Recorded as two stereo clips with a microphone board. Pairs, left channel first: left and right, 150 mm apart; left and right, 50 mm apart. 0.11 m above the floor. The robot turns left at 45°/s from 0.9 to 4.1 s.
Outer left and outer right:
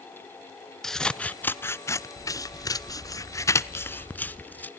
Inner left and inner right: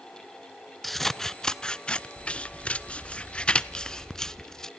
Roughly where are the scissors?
Centre.